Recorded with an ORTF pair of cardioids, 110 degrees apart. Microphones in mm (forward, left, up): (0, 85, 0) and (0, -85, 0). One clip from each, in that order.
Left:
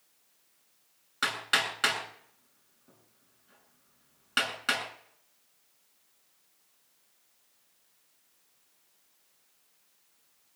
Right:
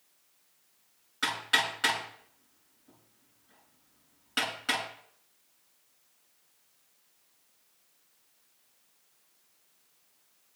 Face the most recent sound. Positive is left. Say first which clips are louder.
# even
turn(degrees=35)